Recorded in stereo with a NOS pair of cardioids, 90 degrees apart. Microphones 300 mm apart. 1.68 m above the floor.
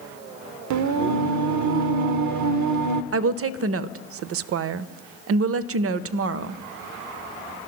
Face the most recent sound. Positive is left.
turn(degrees=-50)